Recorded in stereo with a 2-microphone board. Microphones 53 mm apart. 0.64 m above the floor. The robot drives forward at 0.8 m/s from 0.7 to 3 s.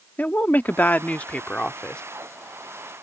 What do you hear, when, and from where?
0.2 s a woman speaking: 35° left (ahead or behind); by 2.0 s 20° left (ahead or behind)